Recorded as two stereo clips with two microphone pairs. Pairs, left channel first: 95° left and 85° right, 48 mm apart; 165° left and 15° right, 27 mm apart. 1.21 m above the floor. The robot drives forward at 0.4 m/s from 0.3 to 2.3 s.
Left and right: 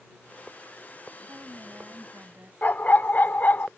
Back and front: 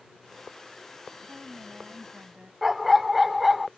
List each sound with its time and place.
1.3 s a woman speaking: 45° right; by 2.5 s 50° right
2.6 s a dog barking: 65° left